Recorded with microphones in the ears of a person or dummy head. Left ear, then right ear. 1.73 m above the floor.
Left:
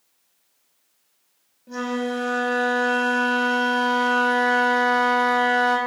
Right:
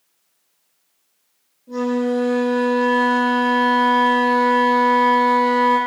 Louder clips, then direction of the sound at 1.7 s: Right 5 dB; 80° left.